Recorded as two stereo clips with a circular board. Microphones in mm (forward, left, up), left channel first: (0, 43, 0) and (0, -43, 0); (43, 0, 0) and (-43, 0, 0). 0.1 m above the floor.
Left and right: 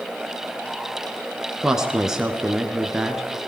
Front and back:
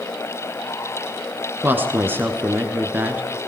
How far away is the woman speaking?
About 1.3 m.